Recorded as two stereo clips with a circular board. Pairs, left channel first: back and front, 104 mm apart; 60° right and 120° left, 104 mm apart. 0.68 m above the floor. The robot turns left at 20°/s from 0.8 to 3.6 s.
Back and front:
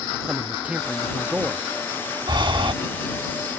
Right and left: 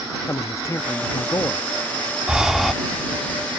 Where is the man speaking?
65° right; by 1.6 s 80° right.